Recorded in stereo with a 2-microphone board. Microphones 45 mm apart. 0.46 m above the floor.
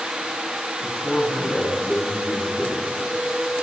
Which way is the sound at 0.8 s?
5° right (ahead or behind).